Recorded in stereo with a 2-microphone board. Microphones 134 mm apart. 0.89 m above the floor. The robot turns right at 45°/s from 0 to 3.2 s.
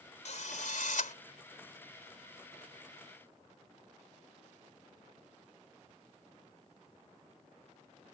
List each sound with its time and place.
0.2 s a drill: 60° left; by 1.1 s 105° left